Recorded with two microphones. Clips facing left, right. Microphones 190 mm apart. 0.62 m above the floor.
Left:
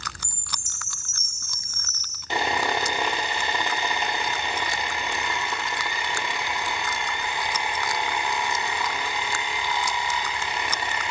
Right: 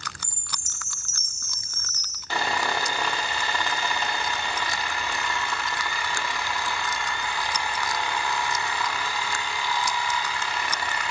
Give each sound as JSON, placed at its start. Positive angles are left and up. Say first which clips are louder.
{"t": 0.2, "sound": "a chime", "louder": "left 1 dB", "side_deg": 55, "distance_m": 6.5}
{"t": 2.3, "sound": "sawing", "louder": "left 2 dB", "side_deg": 20, "distance_m": 1.1}